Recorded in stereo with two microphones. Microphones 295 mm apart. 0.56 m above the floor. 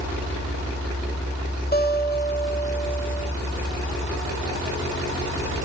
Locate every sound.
1.7 s a guitar: 30° left (ahead or behind), 2 m